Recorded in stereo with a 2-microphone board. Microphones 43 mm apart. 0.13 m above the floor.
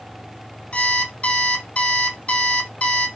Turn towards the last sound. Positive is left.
turn(degrees=30)  # may be behind; listen again after turning